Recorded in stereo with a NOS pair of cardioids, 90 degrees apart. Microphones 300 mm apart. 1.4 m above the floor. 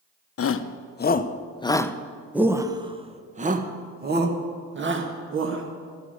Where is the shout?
50° left, 1.2 m; by 5.6 s 45° right, 2.5 m.